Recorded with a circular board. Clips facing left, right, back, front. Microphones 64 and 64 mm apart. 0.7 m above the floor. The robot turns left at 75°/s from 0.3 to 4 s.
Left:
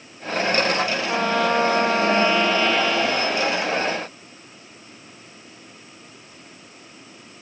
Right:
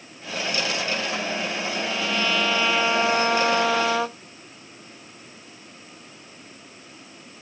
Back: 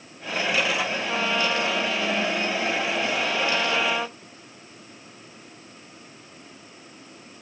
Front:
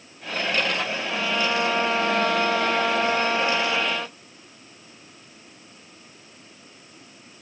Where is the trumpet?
115° left; by 4.2 s 105° right.